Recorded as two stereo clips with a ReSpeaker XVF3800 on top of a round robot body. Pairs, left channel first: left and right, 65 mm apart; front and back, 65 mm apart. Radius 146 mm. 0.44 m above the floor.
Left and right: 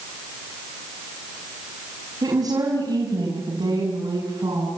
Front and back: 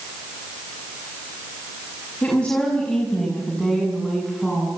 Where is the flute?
No flute in this recording.